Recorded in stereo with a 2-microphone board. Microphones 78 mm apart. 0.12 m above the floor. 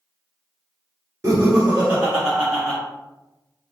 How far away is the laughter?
About 1.3 m.